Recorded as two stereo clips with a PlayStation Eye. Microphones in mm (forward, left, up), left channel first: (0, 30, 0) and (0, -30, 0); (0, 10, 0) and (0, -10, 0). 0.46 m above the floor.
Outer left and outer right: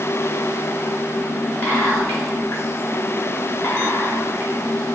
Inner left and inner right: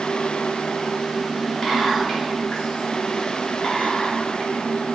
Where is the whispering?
35° left (ahead or behind), 1.8 m.